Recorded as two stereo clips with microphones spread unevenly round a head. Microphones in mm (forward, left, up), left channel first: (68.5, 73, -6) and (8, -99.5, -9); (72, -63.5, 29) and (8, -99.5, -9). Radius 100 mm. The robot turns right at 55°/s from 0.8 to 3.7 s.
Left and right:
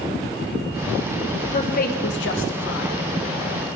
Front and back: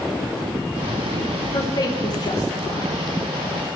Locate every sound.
1.5 s a woman speaking: 15° left, 0.8 m; by 2.9 s 90° left, 0.8 m